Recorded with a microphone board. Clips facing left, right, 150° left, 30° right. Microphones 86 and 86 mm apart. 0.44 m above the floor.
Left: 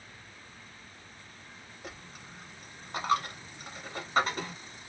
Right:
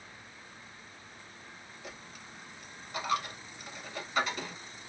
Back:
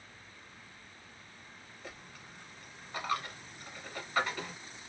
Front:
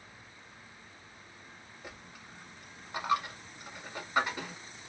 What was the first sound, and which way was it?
A dropped coin, 45° left.